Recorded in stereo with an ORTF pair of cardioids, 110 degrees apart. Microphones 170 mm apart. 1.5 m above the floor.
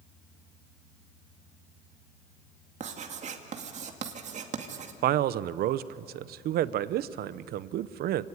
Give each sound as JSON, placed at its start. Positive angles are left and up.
{"t": 2.8, "sound": "writing", "azimuth_deg": -45, "distance_m": 2.0}
{"t": 5.0, "sound": "a man speaking", "azimuth_deg": -65, "distance_m": 0.8}